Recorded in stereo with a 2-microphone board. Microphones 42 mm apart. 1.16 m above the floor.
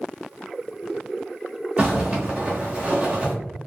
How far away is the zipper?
About 1.0 m.